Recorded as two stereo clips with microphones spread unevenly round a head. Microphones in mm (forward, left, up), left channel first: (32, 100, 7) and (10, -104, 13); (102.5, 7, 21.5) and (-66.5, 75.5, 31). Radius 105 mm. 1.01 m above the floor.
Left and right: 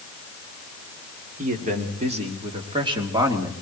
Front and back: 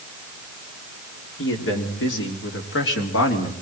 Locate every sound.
1.4 s a man speaking: 45° right, 3.5 m; by 3.5 s 20° right, 3 m